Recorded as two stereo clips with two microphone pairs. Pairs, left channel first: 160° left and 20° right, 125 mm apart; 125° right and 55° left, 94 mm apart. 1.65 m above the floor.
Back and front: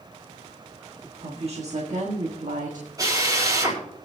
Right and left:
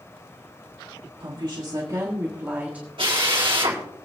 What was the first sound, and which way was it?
A woman speaking, 20° left.